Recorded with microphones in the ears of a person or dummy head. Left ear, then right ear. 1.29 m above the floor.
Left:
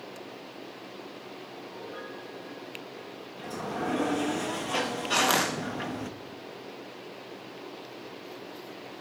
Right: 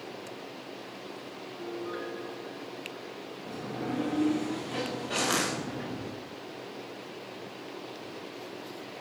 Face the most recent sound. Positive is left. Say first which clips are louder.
# left 4 dB
turn(degrees=30)  # may be behind; listen again after turning